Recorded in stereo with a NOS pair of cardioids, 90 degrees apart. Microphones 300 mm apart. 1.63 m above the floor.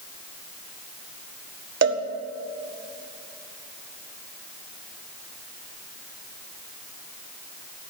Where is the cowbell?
45° right, 1.6 m.